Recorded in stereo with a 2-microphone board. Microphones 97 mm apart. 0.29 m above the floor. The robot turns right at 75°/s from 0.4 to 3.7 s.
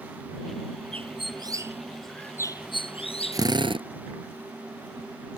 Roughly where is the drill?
Right.